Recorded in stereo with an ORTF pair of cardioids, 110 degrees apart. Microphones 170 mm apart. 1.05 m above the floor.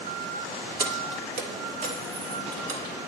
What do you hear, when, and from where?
0.8 s keys jangling: 50° right, 2 m; by 2.9 s 65° right, 5.5 m